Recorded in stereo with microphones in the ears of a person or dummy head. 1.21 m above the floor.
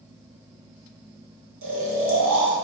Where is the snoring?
80° right, 1.1 m.